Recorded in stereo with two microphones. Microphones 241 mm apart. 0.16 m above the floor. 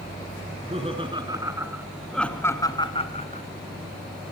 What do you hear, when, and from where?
0.5 s laughter: 30° right (ahead or behind), 2.5 m; by 3.5 s 30° left (ahead or behind), 1.9 m